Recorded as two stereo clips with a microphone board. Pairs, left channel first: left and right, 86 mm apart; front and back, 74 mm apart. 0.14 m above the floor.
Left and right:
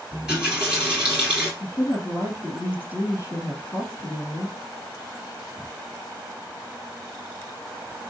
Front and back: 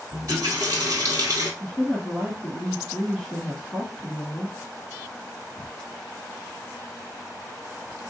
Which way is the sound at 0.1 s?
170° right.